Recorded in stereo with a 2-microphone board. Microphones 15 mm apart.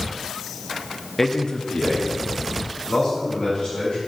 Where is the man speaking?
15° left (ahead or behind), 0.6 m; by 4.0 s 65° left (ahead or behind), 3.5 m.